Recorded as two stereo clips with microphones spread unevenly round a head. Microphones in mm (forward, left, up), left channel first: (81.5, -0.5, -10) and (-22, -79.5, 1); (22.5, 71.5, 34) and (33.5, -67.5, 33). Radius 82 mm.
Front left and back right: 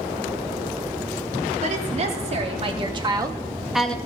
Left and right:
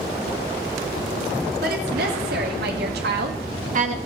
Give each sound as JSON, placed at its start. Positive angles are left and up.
{"t": 1.6, "sound": "a woman speaking", "azimuth_deg": -110, "distance_m": 3.5}